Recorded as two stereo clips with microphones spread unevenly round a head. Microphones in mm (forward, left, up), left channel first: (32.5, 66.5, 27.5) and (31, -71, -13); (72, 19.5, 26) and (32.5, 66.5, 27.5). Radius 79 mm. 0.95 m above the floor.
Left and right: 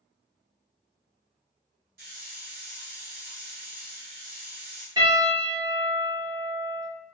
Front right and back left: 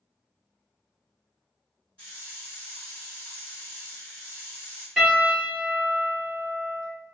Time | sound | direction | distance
2.0 | a hiss | 130° right | 1.8 m
5.0 | a piano | 140° right | 1.7 m